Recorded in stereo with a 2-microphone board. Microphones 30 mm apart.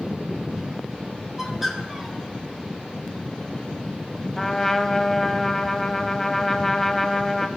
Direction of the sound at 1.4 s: 10° right (ahead or behind).